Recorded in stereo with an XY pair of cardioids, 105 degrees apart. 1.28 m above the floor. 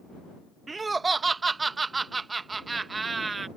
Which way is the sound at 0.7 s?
30° right.